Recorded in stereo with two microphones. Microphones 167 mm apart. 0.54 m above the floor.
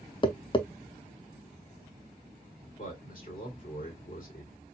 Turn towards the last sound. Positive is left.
turn(degrees=55)  # may be behind; listen again after turning